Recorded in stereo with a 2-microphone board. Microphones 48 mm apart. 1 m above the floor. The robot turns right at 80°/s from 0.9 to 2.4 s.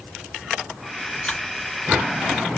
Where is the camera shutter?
20° left (ahead or behind), 1.2 m; by 1.4 s 15° left (ahead or behind), 1.2 m.